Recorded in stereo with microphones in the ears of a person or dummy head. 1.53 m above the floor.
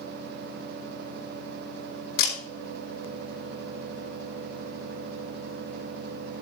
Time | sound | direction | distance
2.2 | a camera shutter | 70° left (ahead or behind) | 3.5 m